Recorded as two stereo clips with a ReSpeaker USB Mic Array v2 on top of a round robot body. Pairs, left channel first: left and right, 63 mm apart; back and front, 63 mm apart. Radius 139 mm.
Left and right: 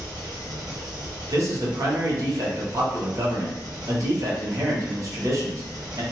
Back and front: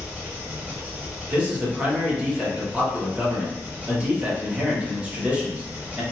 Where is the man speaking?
70° right, 1.5 m.